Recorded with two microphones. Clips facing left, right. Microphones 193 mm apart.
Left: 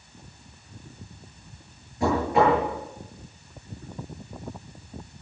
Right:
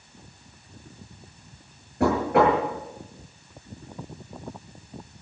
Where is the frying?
I don't hear frying.